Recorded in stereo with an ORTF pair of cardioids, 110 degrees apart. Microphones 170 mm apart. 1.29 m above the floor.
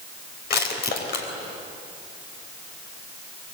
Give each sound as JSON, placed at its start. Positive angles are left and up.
{"t": 0.5, "sound": "crushing", "azimuth_deg": 65, "distance_m": 4.0}